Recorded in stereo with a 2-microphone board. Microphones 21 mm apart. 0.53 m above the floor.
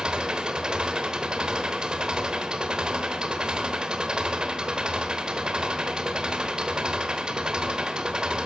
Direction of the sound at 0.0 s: 45° right (ahead or behind).